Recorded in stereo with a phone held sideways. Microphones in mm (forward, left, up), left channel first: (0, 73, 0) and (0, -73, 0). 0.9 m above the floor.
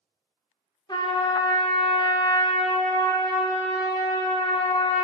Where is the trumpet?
30° left (ahead or behind), 1.0 m.